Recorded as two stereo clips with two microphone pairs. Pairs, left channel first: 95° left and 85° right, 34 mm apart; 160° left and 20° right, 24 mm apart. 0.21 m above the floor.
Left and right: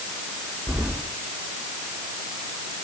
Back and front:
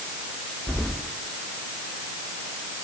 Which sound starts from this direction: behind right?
Keys jangling, at 0.7 s.